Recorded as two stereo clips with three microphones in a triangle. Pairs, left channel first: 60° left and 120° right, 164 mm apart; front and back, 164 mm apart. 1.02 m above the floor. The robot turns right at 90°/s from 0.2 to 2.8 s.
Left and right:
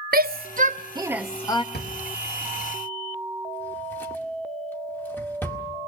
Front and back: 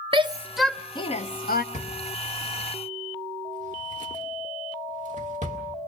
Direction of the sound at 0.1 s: 125° right.